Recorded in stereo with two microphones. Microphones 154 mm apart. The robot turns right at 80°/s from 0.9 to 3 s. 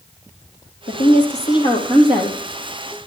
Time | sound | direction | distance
0.9 | a woman speaking | 90° left | 3 m